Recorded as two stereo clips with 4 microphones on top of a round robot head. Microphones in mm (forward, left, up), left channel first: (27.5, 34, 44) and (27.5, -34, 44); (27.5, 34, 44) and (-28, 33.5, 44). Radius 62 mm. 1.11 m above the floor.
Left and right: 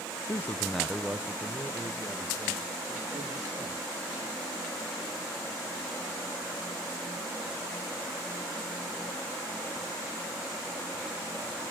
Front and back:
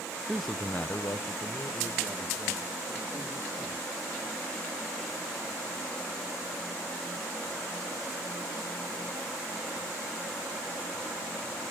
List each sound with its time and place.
0.3 s a man speaking: 100° left, 0.6 m; by 3.9 s 40° right, 3 m